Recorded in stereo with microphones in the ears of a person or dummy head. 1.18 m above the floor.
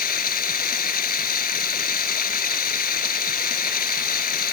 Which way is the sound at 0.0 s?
50° left (ahead or behind).